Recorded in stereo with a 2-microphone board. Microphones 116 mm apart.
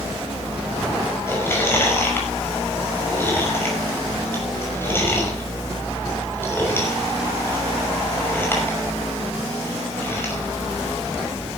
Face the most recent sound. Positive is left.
turn(degrees=20)  # may be behind; listen again after turning